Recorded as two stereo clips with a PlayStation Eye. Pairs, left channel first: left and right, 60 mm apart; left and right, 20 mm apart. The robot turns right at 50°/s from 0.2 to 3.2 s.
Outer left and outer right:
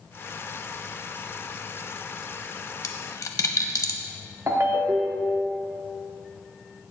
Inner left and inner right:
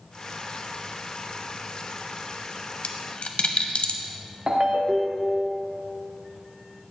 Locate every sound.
2.8 s a dropped coin: 70° left (ahead or behind), 0.7 m
4.5 s a ringtone: 45° right (ahead or behind), 0.8 m